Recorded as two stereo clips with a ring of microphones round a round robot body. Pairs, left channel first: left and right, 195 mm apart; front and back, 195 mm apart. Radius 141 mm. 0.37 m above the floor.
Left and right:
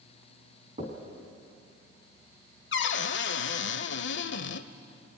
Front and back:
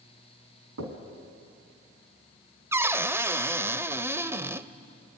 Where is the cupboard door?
100° left, 0.9 m.